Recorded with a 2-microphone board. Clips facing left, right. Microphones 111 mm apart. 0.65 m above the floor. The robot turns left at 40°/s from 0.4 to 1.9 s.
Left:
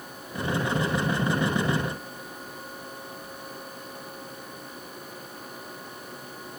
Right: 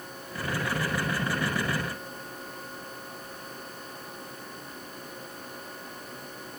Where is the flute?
No flute in this recording.